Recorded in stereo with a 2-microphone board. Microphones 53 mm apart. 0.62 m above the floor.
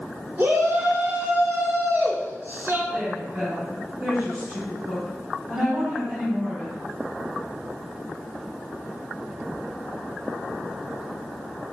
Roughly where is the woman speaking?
Centre.